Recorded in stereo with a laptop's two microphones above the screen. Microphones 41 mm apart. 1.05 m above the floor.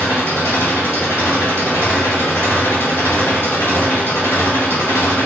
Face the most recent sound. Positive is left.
turn(degrees=80)